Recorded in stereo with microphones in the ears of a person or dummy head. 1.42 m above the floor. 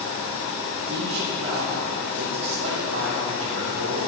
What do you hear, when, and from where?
0.9 s a man speaking: 85° right, 4 m